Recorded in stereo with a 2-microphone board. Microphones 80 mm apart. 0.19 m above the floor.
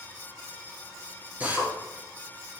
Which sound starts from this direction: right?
A drill, at 1.4 s.